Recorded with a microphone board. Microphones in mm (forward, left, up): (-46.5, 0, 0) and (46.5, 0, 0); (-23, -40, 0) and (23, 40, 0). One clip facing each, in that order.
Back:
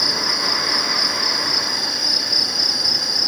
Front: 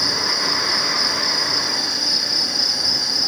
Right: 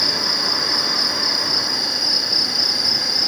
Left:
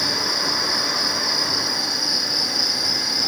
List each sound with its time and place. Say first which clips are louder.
0.0 s an insect: even, even; 145° right, 1.1 m